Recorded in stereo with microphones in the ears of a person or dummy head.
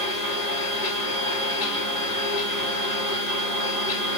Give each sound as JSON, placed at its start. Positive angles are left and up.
{"t": 0.0, "sound": "a machine running", "side_deg": 35, "distance_m": 3.0}